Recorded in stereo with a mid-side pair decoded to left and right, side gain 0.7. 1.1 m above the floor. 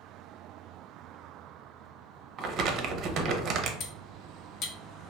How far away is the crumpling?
About 0.6 m.